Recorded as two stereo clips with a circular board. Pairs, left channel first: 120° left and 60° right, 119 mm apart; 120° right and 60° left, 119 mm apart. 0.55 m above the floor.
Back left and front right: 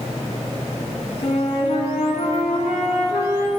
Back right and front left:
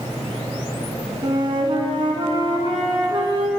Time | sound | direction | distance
1.2 | a flute | 105° left | 1.2 m